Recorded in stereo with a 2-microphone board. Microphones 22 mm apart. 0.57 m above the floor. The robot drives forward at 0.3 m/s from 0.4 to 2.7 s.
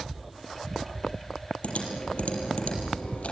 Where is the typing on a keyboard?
70° left (ahead or behind), 6.5 m.